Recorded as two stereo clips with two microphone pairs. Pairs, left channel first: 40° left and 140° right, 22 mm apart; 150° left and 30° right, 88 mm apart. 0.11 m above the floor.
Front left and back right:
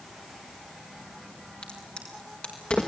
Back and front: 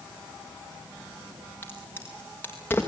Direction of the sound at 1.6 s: 80° left.